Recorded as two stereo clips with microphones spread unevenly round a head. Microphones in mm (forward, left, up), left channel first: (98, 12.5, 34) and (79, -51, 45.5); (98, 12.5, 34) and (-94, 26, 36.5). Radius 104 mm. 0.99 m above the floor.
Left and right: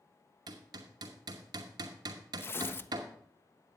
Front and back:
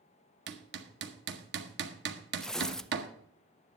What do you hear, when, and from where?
0.5 s hammering: 150° right, 0.9 m
2.4 s tearing paper: 80° left, 0.5 m